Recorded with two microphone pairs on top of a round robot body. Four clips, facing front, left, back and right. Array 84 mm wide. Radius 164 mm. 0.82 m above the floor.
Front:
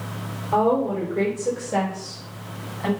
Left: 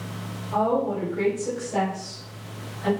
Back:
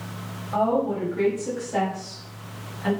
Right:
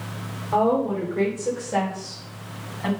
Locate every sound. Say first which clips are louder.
0.5 s a woman speaking: right 2 dB, front 3 dB; 20° right, 4 m; by 2.9 s 30° right, 5.5 m